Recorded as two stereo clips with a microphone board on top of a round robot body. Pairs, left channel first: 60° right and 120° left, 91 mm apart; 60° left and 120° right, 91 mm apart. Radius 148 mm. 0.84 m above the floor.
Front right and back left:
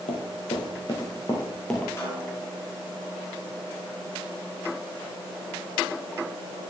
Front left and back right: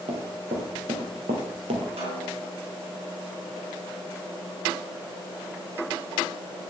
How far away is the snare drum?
About 4 m.